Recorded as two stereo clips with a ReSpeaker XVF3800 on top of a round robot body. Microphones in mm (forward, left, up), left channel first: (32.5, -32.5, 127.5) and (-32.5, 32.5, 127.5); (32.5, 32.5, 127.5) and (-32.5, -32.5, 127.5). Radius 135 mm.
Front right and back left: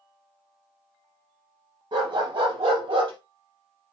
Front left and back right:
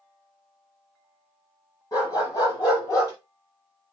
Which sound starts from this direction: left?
A dog barking, at 1.9 s.